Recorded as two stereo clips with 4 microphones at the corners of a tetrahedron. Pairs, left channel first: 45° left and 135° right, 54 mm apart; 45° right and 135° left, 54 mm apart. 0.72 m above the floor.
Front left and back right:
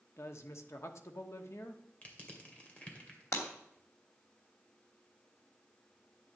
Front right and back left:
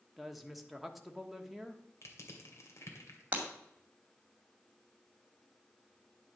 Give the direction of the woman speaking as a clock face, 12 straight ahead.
10 o'clock.